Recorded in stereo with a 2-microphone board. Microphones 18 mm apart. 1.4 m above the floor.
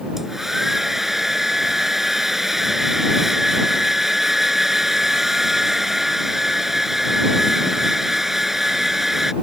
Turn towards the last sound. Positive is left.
turn(degrees=-20)  # may be behind; listen again after turning